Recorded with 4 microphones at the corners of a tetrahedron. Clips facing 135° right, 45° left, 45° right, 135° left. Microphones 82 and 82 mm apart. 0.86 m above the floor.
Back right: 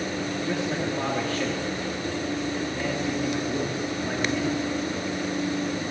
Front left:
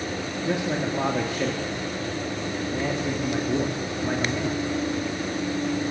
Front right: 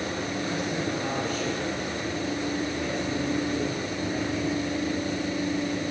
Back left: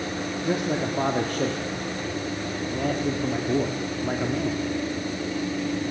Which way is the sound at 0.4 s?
115° left.